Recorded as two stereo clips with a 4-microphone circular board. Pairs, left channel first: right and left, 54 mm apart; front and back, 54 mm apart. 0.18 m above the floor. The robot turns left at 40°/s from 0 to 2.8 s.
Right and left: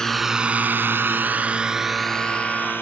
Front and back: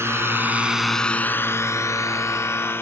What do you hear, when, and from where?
0.0 s a drone: 165° right; by 2.8 s 45° right